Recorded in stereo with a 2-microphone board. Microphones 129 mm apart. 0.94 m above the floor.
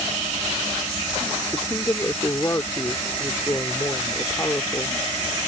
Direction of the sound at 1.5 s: 25° left (ahead or behind).